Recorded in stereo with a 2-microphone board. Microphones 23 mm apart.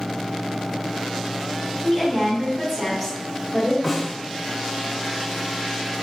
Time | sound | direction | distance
1.8 | a woman speaking | 5° left (ahead or behind) | 1.2 m
3.8 | a snare drum | 5° right (ahead or behind) | 1.2 m